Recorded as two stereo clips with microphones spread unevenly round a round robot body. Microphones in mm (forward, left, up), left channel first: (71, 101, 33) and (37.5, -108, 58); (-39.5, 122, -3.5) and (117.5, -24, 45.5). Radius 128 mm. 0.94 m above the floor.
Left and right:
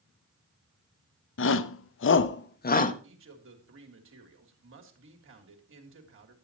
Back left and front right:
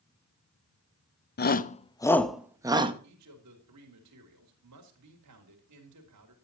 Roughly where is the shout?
Left.